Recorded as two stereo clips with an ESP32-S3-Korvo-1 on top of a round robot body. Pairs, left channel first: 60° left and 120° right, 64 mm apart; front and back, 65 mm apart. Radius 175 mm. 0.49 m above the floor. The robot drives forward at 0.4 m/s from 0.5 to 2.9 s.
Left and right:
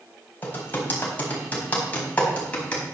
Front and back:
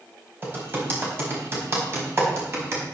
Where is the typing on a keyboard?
120° left, 4 m; by 2.8 s 130° left, 4.5 m.